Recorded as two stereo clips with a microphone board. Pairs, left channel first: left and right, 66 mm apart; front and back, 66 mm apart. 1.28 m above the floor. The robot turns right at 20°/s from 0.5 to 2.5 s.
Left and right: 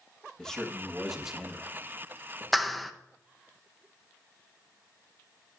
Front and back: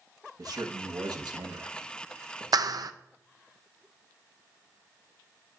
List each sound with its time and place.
0.4 s a man speaking: 170° left, 1.4 m; by 2.4 s 150° right, 1.4 m
2.5 s a clap: straight behind, 0.7 m